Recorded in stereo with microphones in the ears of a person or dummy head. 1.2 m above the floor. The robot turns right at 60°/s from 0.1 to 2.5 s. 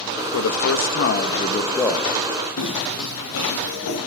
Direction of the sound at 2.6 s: 65° left (ahead or behind).